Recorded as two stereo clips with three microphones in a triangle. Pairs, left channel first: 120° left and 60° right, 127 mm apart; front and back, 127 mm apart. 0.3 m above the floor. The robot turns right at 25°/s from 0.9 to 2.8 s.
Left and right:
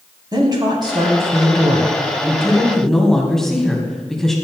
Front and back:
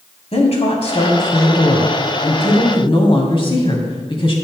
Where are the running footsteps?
I don't hear running footsteps.